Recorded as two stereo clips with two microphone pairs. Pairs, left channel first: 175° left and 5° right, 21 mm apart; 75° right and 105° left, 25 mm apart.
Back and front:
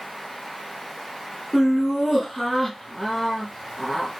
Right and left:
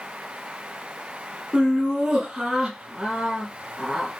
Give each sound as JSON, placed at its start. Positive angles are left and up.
{"t": 1.5, "sound": "laughter", "azimuth_deg": 100, "distance_m": 1.8}